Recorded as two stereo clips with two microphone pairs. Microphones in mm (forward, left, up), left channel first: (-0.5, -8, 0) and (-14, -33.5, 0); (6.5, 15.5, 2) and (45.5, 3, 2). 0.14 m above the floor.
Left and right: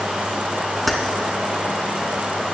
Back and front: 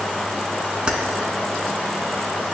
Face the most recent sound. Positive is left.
turn(degrees=-20)